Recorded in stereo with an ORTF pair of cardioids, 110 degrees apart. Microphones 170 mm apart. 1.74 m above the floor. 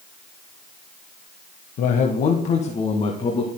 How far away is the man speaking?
About 1.2 m.